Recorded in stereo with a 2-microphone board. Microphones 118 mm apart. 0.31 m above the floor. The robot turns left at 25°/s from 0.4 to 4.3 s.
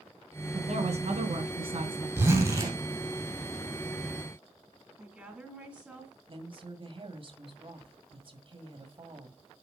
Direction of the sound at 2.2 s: 20° right (ahead or behind).